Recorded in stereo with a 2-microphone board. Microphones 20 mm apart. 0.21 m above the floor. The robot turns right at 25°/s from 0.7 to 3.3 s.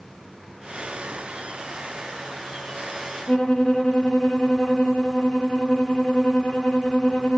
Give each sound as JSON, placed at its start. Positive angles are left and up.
{"t": 3.3, "sound": "a violin", "side_deg": 30, "distance_m": 2.0}